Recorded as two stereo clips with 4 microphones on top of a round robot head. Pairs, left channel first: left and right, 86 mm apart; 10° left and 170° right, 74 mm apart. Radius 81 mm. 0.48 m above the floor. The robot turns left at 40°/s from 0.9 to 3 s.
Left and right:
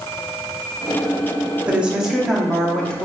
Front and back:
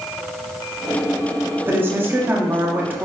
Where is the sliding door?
I don't hear a sliding door.